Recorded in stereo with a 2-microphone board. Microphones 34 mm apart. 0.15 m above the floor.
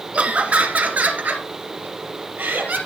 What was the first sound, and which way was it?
Laughter, 40° right (ahead or behind).